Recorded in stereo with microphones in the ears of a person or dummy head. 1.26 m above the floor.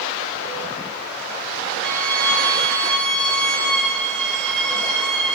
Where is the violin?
10° left (ahead or behind), 3 m.